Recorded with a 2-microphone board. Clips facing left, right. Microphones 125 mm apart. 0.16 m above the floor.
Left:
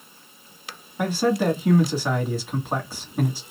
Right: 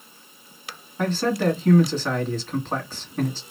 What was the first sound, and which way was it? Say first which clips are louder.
A man speaking: left 1 dB; 10° left (ahead or behind).